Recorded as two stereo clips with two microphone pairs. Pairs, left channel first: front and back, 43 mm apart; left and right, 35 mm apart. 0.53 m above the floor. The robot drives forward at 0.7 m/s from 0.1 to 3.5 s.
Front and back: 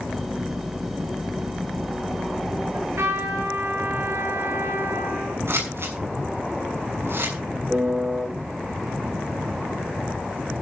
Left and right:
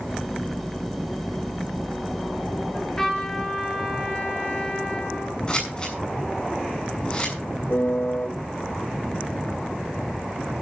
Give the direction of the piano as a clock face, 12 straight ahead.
8 o'clock.